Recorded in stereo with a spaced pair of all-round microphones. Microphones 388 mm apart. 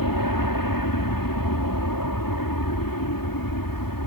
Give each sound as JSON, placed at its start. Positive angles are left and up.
{"t": 0.0, "sound": "an aircraft", "side_deg": 60}